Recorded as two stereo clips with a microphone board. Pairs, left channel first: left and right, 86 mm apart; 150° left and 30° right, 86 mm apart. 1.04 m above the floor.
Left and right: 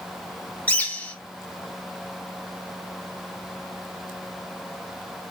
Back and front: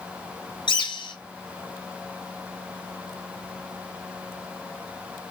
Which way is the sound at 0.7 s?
160° left.